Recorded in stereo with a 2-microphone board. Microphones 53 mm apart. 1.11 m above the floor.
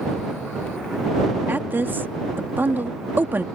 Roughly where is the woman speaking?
Right.